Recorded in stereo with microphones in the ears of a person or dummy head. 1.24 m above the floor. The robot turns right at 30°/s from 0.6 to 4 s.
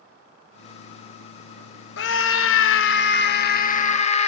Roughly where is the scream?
Left.